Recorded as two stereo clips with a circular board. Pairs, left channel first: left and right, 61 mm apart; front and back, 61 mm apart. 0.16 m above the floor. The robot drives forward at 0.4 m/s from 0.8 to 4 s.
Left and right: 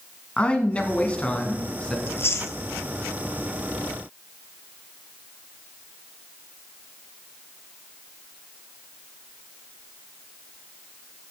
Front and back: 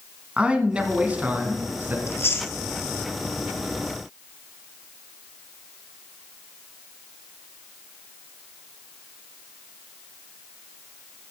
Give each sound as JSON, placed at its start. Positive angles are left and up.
{"t": 0.4, "sound": "a man speaking", "azimuth_deg": 130, "distance_m": 1.3}
{"t": 2.1, "sound": "chewing", "azimuth_deg": 40, "distance_m": 0.9}